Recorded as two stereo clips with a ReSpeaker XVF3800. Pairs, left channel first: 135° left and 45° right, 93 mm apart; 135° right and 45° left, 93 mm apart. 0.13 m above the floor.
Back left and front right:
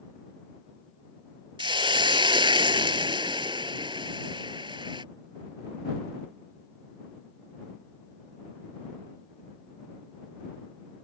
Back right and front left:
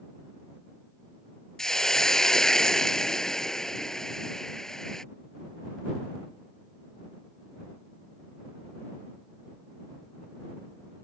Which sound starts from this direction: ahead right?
A hiss, at 1.6 s.